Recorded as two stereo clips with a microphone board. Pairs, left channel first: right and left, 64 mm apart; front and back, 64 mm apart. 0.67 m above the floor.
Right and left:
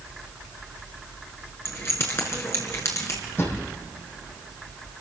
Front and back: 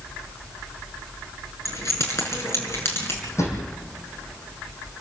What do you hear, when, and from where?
1.6 s keys jangling: 40° right, 6 m; by 3.2 s 50° right, 5.5 m
3.4 s a drawer: 40° right, 7.5 m